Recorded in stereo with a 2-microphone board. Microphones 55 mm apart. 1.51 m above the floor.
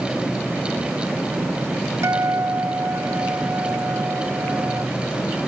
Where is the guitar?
70° right (ahead or behind), 1.3 m.